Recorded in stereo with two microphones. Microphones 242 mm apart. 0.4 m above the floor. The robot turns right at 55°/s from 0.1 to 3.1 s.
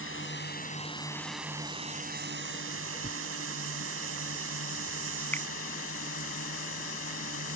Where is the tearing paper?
30° right (ahead or behind); by 5.0 s 35° right (ahead or behind).